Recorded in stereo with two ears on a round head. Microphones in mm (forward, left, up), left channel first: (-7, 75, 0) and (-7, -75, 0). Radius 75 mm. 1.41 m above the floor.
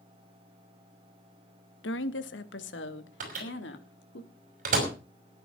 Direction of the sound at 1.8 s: 85° left.